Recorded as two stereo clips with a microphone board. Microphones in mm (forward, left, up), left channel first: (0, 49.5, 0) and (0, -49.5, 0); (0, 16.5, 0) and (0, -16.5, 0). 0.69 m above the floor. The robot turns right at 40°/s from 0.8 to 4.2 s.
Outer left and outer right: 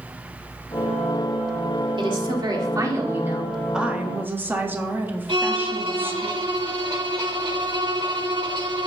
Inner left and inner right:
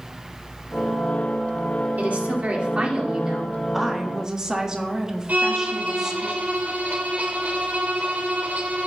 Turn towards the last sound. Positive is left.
turn(degrees=-60)  # may be behind; listen again after turning